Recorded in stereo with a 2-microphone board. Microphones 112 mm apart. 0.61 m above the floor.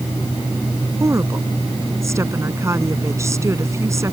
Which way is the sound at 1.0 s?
25° right (ahead or behind).